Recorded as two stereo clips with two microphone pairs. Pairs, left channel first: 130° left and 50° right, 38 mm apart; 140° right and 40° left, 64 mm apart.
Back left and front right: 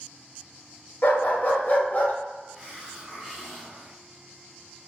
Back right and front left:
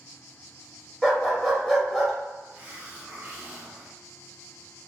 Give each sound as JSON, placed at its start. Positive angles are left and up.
{"t": 1.0, "sound": "a dog barking", "azimuth_deg": 135, "distance_m": 0.7}
{"t": 2.5, "sound": "a hiss", "azimuth_deg": 10, "distance_m": 0.7}